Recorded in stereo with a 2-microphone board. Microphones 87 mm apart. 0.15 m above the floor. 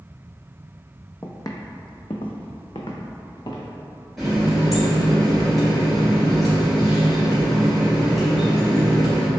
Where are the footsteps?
30° left (ahead or behind), 0.5 m; by 3.7 s 60° left (ahead or behind), 1.2 m.